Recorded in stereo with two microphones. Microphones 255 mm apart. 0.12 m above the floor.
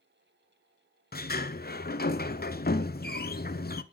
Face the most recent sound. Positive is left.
turn(degrees=40)  # may be behind; listen again after turning